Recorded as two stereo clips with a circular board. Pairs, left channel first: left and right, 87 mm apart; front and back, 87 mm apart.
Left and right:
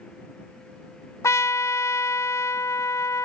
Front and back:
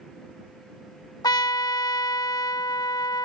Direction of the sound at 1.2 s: 40° left.